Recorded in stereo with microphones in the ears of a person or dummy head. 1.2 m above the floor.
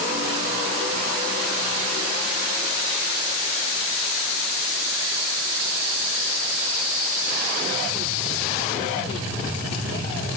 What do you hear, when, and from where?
Only background noise.